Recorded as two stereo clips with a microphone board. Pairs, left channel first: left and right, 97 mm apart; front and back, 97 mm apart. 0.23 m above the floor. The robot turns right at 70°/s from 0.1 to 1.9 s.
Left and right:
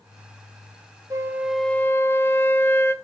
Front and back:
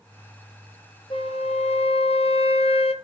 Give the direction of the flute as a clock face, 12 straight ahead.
1 o'clock.